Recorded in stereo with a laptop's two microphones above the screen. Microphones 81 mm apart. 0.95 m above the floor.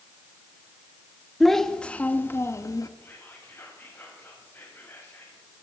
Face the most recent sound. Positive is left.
turn(degrees=30)  # may be behind; listen again after turning